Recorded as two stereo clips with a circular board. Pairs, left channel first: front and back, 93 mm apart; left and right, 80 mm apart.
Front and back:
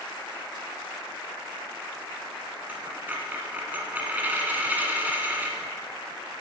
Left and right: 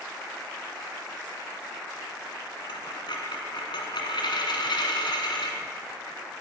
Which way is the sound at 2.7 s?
110° left.